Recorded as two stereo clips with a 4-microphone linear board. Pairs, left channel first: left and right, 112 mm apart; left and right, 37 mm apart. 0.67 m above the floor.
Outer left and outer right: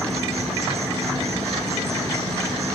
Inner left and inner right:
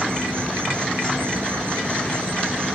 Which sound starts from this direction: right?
An insect, at 0.0 s.